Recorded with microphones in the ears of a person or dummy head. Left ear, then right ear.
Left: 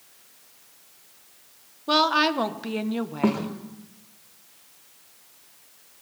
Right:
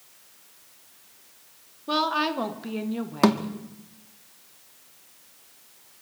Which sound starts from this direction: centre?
A woman speaking, at 1.9 s.